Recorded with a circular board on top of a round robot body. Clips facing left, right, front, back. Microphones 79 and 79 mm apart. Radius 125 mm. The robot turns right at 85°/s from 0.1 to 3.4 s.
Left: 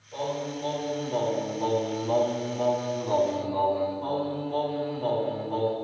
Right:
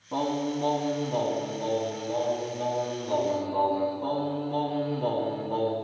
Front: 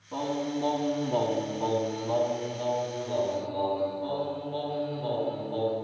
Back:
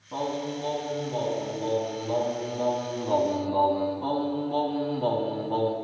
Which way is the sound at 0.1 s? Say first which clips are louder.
Right 3 dB, even; 100° right.